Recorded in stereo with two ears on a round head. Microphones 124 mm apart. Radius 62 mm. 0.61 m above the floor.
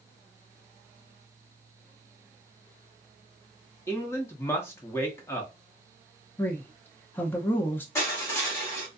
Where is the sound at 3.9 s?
20° left (ahead or behind), 0.7 m.